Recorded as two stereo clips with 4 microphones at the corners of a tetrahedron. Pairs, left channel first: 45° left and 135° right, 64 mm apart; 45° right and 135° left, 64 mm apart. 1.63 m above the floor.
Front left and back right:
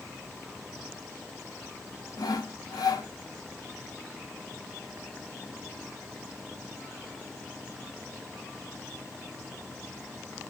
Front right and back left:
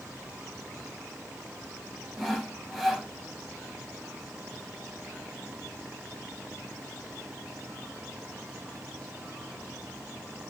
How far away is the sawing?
About 0.8 m.